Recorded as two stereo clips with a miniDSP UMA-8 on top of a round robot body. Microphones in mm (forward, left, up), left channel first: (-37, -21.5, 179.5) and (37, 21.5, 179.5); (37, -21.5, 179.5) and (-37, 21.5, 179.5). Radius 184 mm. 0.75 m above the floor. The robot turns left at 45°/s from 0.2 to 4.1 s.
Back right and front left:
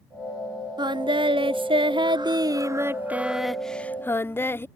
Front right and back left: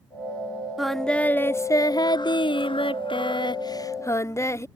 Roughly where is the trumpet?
I don't hear a trumpet.